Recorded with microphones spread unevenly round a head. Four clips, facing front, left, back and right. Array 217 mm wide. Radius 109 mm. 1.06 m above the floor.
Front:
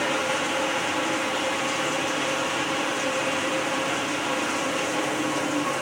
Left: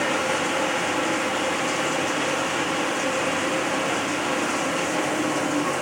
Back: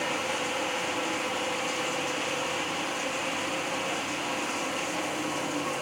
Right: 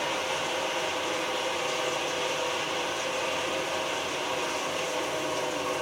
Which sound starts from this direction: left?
Running water, at 0.0 s.